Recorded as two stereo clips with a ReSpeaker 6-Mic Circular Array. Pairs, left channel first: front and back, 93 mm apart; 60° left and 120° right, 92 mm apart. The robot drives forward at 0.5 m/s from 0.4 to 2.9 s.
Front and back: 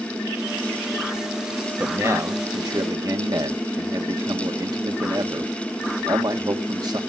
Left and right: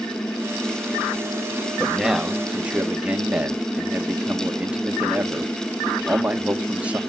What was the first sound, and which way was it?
A man speaking, 155° left.